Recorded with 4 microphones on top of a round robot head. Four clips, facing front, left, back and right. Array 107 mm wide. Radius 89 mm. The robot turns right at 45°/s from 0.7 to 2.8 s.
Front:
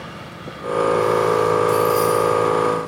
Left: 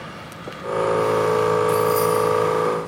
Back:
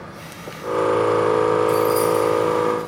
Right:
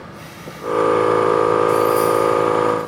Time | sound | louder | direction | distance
1.7 | keys jangling | right 3 dB, front 1 dB | 110° left | 1.1 m